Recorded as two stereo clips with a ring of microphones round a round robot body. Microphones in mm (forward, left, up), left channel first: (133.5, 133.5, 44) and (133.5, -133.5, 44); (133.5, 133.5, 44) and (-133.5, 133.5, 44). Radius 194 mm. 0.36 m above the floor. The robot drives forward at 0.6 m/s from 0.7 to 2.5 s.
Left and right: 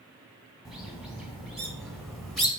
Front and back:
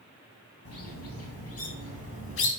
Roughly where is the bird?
Ahead.